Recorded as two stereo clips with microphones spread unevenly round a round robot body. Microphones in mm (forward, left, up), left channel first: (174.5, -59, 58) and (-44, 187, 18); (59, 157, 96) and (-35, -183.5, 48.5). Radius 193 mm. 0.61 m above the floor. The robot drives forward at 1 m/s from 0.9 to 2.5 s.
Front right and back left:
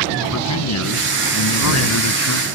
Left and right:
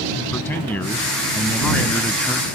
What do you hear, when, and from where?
0.3 s a man speaking: 10° right; by 2.5 s 15° right